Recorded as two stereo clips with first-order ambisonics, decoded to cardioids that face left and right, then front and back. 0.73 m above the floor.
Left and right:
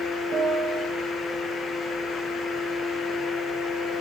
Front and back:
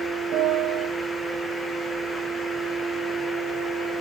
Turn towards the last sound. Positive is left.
turn(degrees=-150)